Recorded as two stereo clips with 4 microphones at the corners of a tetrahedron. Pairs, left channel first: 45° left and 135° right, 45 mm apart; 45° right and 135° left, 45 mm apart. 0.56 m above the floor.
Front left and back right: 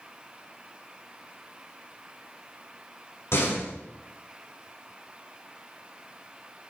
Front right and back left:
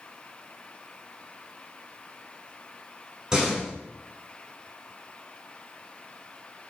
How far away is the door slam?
About 4.5 m.